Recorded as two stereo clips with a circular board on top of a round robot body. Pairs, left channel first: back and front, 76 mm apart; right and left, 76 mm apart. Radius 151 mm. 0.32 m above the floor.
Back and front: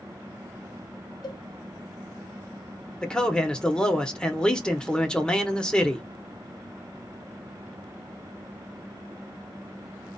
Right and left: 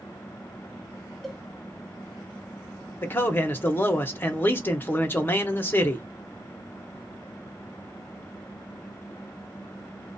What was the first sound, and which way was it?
A cowbell, straight behind.